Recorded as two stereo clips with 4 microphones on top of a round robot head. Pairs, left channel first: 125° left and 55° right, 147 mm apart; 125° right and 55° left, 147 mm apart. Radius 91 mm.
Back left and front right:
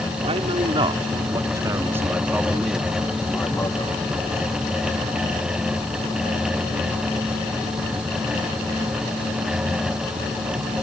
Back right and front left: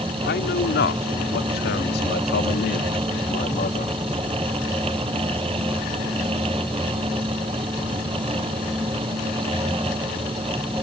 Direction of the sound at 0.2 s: 110° right.